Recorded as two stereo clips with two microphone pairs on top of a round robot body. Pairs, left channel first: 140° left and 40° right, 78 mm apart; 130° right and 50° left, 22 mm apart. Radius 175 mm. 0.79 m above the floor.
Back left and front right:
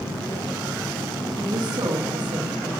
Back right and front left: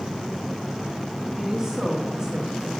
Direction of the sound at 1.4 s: 20° right.